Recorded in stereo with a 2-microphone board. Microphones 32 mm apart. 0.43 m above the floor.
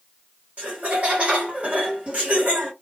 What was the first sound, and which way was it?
Laughter, 45° right (ahead or behind).